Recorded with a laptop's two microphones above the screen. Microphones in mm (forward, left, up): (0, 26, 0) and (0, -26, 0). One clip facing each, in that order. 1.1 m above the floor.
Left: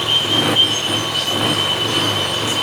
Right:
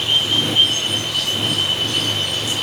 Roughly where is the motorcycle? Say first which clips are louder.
Left 2 dB; left.